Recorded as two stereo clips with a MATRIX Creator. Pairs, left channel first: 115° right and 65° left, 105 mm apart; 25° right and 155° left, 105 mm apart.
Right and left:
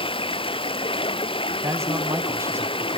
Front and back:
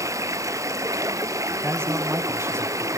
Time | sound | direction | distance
0.0 | running water | 140° right | 0.9 m
1.6 | a man speaking | 110° left | 1.6 m